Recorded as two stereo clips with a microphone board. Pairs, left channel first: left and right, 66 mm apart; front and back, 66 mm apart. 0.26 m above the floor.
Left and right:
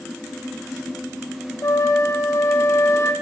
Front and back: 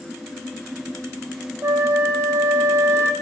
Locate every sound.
1.6 s a flute: 135° left, 3 m